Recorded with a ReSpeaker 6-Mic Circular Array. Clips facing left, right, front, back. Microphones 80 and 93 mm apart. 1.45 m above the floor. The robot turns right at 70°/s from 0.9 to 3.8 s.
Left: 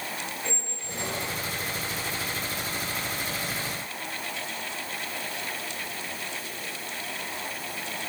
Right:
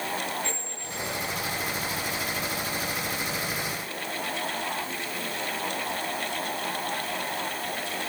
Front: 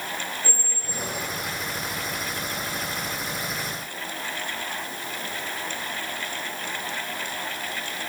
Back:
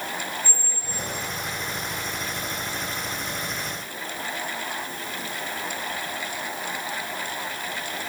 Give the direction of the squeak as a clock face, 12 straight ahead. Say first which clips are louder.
Right 1 dB, front 1 dB; 11 o'clock.